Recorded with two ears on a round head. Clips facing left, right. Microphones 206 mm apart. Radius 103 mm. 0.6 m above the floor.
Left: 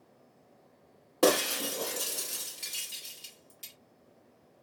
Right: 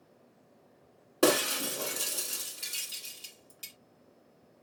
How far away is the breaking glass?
About 1.0 m.